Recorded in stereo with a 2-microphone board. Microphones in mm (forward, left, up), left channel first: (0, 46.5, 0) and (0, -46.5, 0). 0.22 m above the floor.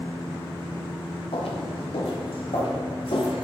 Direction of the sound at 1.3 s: 85° left.